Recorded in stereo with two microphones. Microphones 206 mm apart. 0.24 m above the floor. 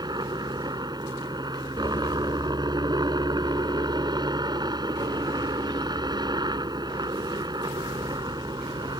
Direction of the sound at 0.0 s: 20° right (ahead or behind).